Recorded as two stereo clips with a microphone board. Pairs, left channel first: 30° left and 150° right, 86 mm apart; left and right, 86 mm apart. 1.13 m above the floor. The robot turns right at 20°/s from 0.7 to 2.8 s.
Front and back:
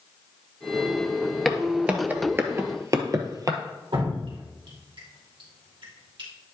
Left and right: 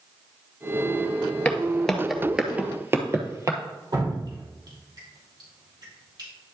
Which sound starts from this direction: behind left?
Footsteps, at 1.4 s.